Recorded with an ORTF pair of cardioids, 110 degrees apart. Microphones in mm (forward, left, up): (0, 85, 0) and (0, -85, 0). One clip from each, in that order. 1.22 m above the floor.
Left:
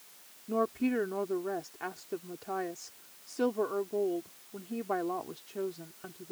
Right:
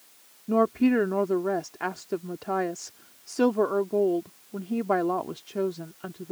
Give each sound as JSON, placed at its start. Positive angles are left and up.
{"t": 0.5, "sound": "a woman speaking", "azimuth_deg": -45}